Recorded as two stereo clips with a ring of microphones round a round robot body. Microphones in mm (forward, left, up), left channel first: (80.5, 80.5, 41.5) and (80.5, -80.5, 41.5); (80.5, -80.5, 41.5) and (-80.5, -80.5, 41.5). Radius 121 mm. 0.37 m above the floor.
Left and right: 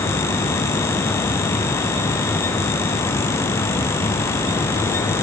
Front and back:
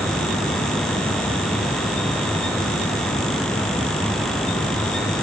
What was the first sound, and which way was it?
Only background noise.